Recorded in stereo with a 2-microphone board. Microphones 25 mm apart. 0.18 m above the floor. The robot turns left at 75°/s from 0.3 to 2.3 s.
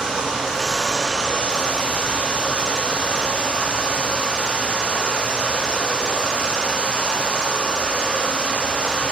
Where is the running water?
150° right, 4.5 m; by 9.1 s 60° left, 4.5 m.